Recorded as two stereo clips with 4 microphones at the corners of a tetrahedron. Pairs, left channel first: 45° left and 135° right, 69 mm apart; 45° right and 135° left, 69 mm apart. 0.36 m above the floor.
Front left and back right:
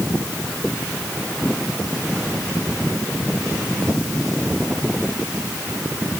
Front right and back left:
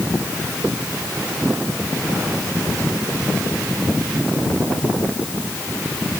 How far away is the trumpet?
I don't hear a trumpet.